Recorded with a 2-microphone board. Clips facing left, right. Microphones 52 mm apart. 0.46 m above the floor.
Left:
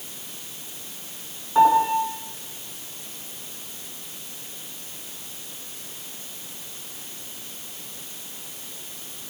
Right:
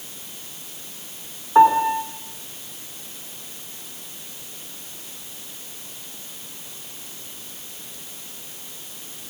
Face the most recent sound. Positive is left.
turn(degrees=-25)  # may be behind; listen again after turning